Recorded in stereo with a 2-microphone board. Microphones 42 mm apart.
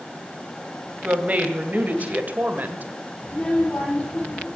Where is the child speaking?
30° left (ahead or behind), 7.5 m.